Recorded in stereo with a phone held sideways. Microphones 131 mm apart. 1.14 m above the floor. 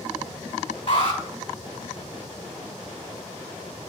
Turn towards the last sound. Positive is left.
turn(degrees=45)  # may be behind; listen again after turning